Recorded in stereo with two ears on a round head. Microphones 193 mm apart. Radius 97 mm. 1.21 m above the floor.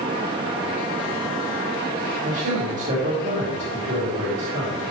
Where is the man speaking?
35° right (ahead or behind), 3 m.